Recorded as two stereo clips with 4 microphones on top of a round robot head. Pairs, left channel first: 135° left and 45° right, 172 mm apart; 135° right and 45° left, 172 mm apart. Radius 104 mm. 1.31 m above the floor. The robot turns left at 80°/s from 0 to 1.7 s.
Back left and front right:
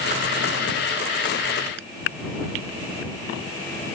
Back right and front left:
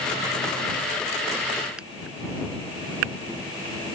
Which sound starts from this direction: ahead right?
A finger snap, at 1.8 s.